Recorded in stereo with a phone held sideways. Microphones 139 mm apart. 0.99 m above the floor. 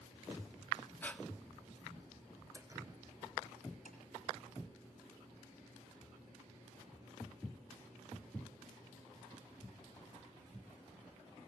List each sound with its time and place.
1.0 s breathing: 10° left (ahead or behind), 1.2 m
2.5 s dripping: 25° right (ahead or behind), 0.8 m
3.9 s tapping: 75° left (ahead or behind), 5.5 m